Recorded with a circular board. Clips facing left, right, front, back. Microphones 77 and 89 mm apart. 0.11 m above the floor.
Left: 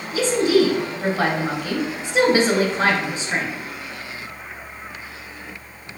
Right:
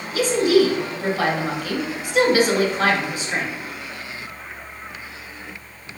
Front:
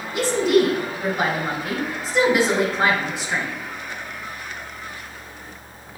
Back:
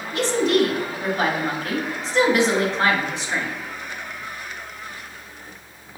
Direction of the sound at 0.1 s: 70° left.